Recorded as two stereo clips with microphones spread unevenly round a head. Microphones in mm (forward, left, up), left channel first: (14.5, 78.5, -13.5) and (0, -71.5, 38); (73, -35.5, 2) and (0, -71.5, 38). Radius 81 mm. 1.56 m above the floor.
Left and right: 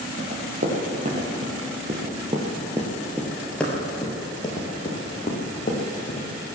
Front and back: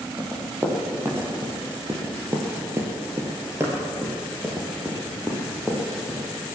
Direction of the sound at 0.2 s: 100° right.